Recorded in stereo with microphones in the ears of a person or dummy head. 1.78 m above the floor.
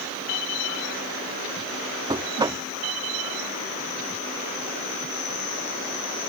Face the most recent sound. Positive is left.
turn(degrees=-15)  # may be behind; listen again after turning